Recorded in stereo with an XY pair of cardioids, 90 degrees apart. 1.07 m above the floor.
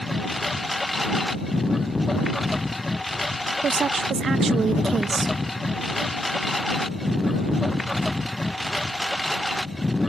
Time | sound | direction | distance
0.0 | a lawn mower | 15° left | ?
3.6 | a woman speaking | 50° right | ?